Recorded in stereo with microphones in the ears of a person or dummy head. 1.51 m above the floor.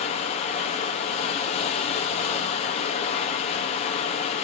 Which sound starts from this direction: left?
Running water, at 0.0 s.